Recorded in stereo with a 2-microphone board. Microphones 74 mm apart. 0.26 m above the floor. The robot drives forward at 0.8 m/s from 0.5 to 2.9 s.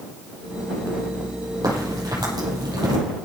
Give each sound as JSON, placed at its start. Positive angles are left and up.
{"t": 1.6, "sound": "a crack", "side_deg": -55, "distance_m": 8.0}